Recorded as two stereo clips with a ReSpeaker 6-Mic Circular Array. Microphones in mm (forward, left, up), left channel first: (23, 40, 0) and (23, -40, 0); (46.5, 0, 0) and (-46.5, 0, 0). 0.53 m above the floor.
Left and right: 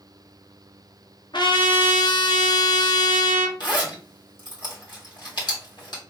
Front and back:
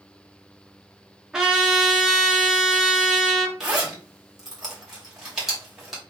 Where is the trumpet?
95° left, 1.3 m.